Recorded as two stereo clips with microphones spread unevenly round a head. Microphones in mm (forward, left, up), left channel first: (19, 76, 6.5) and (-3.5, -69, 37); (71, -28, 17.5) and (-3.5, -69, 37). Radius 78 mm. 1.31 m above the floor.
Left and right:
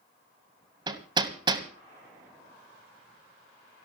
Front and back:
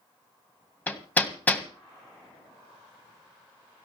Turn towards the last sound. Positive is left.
turn(degrees=-50)